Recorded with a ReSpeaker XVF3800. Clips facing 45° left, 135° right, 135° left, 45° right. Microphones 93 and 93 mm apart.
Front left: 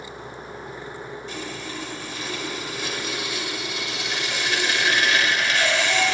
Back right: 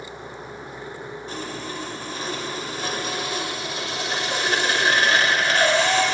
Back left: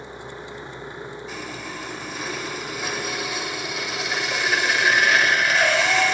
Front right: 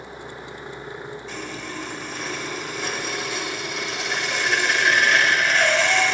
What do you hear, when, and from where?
1.3 s sawing: 140° right, 1.4 m